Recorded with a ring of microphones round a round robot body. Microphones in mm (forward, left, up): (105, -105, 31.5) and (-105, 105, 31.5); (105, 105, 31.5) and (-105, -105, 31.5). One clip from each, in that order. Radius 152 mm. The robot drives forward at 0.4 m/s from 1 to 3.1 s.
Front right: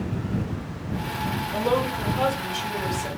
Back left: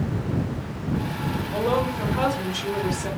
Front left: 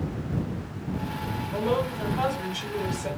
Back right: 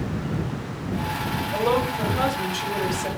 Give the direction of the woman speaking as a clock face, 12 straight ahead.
4 o'clock.